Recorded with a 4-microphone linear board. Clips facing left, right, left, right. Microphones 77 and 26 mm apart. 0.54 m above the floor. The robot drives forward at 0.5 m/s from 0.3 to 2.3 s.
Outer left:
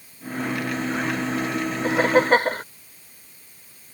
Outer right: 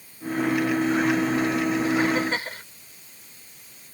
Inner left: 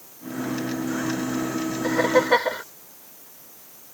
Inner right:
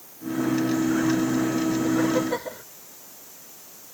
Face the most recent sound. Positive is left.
turn(degrees=55)  # may be behind; listen again after turning